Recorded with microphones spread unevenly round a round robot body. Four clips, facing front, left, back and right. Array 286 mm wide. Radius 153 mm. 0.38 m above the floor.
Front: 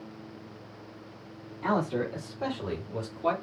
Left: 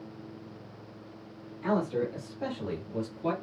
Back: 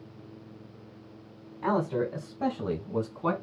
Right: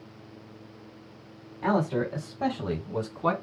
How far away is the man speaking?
About 2 m.